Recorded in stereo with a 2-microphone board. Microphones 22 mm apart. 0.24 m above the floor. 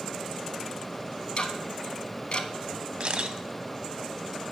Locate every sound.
1.4 s ticking: 45° left (ahead or behind), 0.6 m
3.0 s a camera shutter: 45° right (ahead or behind), 0.6 m